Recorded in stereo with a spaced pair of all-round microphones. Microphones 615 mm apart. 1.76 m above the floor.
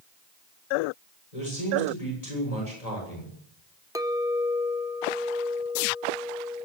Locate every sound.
1.3 s a man speaking: 80° left, 7.5 m
4.0 s a clink: 5° right (ahead or behind), 0.9 m